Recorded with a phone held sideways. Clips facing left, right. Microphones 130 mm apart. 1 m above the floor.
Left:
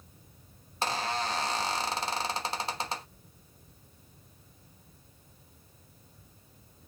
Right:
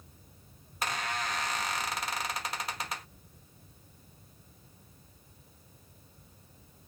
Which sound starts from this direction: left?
A squeak, at 0.8 s.